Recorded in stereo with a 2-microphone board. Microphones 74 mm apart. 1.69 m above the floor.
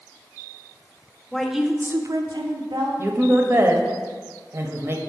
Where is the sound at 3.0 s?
35° right (ahead or behind), 0.8 m.